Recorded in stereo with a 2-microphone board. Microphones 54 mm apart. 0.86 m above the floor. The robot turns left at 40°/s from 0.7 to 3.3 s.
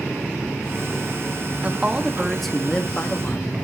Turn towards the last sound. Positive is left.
turn(degrees=140)